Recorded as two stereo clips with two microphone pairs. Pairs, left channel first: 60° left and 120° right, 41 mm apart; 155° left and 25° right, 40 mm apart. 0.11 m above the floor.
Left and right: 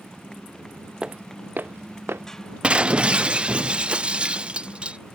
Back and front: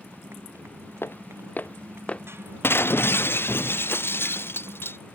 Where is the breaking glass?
175° left.